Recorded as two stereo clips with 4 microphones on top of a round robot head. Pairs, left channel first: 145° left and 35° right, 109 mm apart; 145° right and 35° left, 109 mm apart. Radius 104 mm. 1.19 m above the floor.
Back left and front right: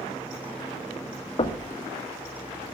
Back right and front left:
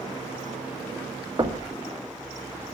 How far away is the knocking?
About 1.9 m.